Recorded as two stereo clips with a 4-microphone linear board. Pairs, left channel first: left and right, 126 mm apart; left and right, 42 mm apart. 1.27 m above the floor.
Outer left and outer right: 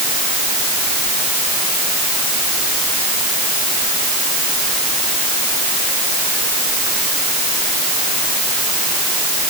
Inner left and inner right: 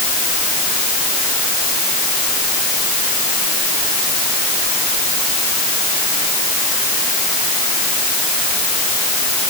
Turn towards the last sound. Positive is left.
No sound to turn to.